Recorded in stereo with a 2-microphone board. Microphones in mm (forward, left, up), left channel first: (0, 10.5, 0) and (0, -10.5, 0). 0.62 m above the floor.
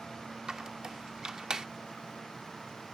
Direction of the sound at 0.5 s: 35° right (ahead or behind).